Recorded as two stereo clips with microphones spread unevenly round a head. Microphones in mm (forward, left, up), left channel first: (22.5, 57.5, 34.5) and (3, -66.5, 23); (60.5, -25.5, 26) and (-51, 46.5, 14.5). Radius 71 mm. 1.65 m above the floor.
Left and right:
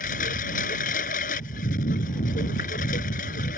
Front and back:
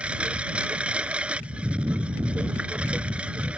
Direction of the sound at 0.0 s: 65° left.